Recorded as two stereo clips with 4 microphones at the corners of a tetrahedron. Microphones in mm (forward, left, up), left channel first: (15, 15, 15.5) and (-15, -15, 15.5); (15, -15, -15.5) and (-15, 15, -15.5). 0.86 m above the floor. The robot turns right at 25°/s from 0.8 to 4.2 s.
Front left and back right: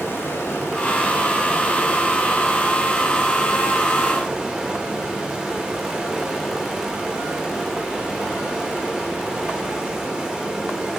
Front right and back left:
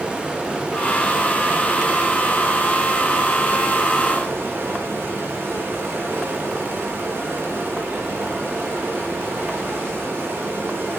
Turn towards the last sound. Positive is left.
turn(degrees=150)